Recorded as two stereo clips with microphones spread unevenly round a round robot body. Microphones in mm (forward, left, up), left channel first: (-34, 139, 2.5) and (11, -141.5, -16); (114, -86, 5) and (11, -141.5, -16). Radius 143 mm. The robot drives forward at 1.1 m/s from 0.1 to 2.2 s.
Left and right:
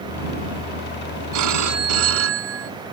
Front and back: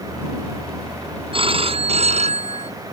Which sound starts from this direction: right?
A phone ringing, at 1.3 s.